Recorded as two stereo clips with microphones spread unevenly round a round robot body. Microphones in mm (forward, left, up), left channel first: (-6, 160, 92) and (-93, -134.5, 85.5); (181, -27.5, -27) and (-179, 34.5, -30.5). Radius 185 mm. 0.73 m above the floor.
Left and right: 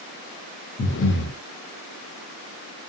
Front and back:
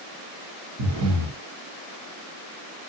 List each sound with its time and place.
0.8 s breathing: 125° left, 0.8 m